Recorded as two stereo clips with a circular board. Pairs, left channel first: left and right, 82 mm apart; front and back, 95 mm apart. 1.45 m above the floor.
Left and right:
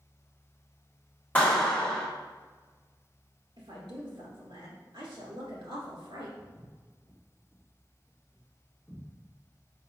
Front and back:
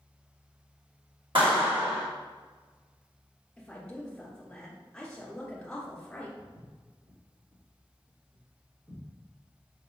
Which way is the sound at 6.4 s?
140° left.